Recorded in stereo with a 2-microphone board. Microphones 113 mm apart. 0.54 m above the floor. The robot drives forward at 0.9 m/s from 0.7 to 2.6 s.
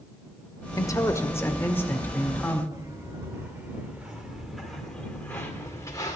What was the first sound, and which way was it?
A man speaking, 30° left (ahead or behind).